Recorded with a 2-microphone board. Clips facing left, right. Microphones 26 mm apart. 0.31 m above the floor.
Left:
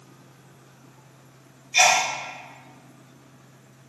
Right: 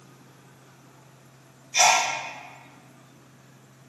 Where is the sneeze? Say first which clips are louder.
Left 1 dB; 20° left (ahead or behind), 0.9 m.